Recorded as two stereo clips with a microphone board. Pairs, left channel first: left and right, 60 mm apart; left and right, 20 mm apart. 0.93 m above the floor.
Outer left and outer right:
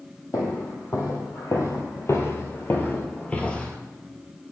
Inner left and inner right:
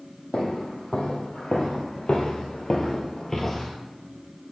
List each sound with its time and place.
0.3 s footsteps: 65° left (ahead or behind), 2 m; by 3.8 s 15° left (ahead or behind), 1.3 m